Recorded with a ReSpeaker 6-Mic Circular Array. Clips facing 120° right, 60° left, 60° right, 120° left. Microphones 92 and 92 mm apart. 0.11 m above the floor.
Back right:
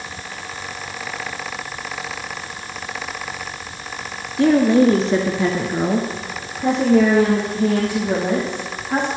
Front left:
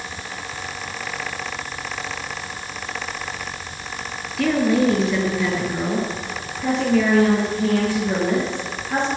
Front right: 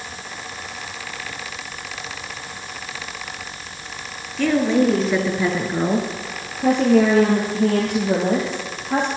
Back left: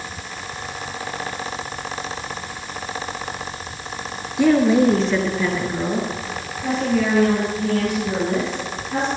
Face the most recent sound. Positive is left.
turn(degrees=-45)